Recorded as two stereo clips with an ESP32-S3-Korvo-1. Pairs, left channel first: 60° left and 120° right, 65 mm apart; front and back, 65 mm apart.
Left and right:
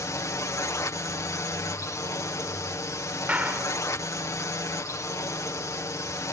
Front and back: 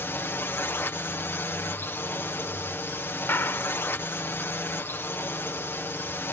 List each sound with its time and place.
0.0 s a drone: 45° left
3.3 s a clap: 50° right